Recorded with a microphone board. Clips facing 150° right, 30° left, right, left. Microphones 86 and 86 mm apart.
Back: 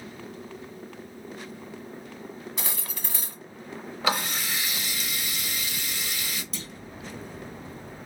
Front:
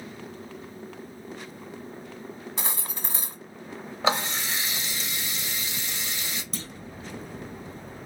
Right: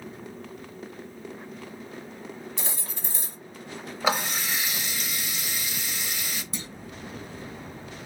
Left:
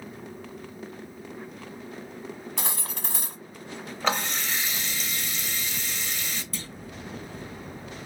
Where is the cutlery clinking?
80° left, 1.1 m.